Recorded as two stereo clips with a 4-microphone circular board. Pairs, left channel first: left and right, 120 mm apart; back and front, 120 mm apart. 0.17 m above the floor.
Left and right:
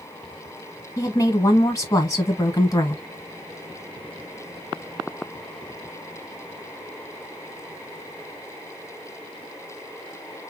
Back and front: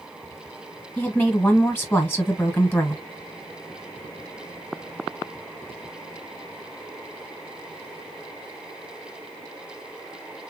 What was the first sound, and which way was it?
A woman speaking, 125° left.